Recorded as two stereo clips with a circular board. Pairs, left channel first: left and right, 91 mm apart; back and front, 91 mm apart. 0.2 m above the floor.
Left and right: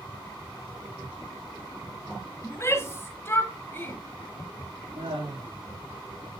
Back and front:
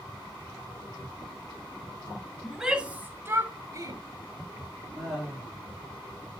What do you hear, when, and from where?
2.4 s a shout: 90° left, 1.7 m; by 4.0 s 30° left, 2.5 m
5.0 s laughter: 60° right, 6 m